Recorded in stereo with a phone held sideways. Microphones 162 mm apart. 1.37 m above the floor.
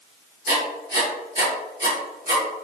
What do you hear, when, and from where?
0.5 s writing: 60° right (ahead or behind), 1.6 m